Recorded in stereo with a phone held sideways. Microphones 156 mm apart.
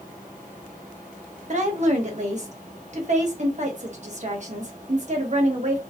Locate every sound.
1.5 s a woman speaking: 50° right (ahead or behind), 1.5 m